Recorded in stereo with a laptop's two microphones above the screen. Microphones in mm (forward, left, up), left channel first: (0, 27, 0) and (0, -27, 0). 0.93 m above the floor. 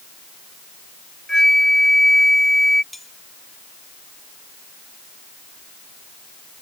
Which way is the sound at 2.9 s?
Centre (ahead or behind).